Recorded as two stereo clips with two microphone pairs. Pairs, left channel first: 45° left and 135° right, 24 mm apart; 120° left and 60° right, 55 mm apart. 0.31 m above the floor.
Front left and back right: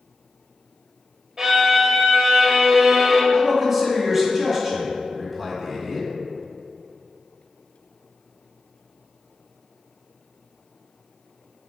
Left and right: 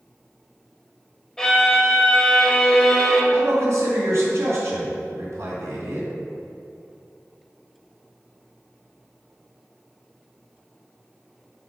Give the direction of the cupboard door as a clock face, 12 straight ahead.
I don't hear a cupboard door.